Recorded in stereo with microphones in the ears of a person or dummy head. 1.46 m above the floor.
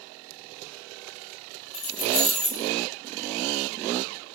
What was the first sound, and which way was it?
Keys jangling, 35° left (ahead or behind).